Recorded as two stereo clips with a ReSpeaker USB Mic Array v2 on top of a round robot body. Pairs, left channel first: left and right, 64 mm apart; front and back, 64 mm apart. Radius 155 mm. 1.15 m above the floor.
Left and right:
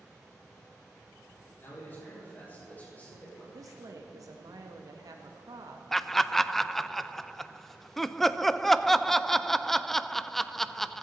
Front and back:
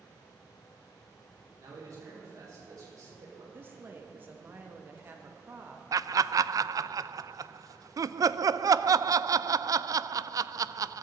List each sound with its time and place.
1.6 s a man speaking: 145° left, 5.5 m; by 3.4 s 160° left, 5.5 m
3.5 s a woman speaking: 120° right, 1.4 m
5.9 s laughter: 175° left, 0.5 m